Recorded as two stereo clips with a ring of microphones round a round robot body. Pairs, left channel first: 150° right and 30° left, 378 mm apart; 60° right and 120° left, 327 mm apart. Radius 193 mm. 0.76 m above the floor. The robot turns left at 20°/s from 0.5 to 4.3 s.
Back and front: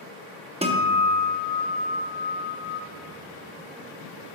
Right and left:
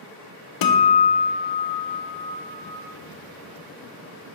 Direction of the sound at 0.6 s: 45° right.